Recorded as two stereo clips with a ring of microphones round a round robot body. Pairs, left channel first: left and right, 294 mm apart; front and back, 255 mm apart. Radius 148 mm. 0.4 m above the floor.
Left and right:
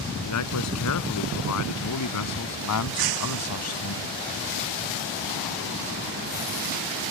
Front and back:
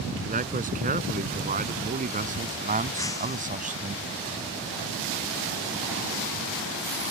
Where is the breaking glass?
80° right.